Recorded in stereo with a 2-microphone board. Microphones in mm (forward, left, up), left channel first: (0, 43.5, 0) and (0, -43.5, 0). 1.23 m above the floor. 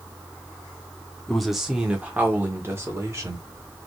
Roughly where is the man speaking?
Centre.